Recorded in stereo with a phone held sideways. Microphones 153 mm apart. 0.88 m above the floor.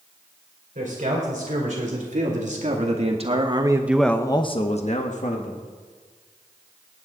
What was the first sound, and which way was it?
A man speaking, 55° right (ahead or behind).